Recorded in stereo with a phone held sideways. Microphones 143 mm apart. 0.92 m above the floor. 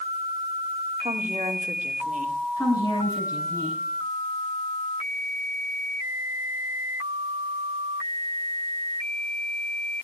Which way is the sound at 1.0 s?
55° right (ahead or behind).